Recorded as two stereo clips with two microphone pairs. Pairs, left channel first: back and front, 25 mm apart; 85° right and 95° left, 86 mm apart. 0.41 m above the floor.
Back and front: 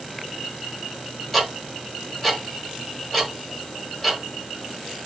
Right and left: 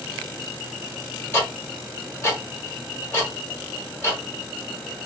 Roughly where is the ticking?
Right.